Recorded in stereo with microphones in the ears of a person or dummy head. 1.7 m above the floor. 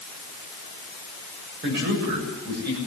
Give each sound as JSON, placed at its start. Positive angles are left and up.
{"t": 1.6, "sound": "a man speaking", "side_deg": -55, "distance_m": 7.5}